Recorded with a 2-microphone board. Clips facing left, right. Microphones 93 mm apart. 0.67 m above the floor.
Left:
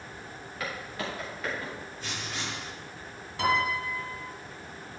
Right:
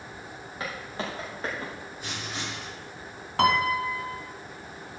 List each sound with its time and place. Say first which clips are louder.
0.6 s footsteps: right 1 dB; 25° right (ahead or behind), 7 m; by 1.7 s 30° right (ahead or behind), 6.5 m
2.0 s writing: right 1 dB; 15° right (ahead or behind), 6 m
3.4 s a piano: right 4 dB; 65° right (ahead or behind), 2 m